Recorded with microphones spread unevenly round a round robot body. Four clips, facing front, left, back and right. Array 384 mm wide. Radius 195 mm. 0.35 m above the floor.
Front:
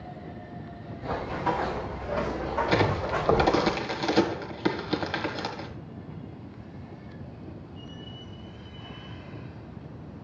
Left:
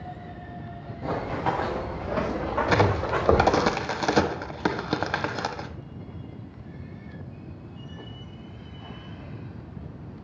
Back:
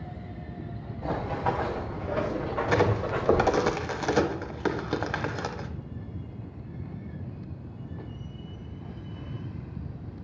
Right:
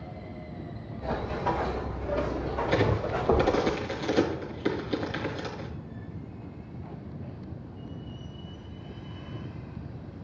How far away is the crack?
About 1.4 m.